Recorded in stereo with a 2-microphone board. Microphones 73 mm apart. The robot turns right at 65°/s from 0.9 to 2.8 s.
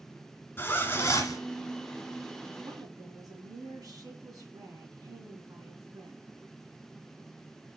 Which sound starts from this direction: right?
A woman speaking, at 2.6 s.